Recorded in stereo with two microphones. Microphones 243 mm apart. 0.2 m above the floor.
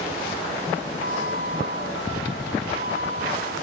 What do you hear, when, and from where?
1.0 s a flute: 55° left (ahead or behind)